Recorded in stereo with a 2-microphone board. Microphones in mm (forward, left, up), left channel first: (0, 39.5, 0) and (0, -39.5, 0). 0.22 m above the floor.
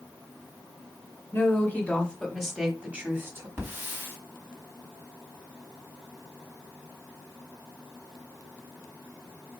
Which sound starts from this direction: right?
A hiss, at 3.6 s.